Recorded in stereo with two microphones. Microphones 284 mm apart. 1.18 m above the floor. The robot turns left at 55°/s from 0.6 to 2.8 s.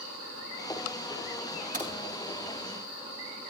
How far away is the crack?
About 5.5 m.